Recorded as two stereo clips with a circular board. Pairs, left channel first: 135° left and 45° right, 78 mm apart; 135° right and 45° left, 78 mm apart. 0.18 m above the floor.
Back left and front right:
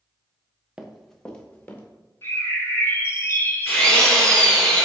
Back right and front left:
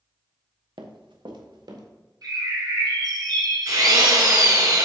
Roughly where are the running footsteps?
Ahead left.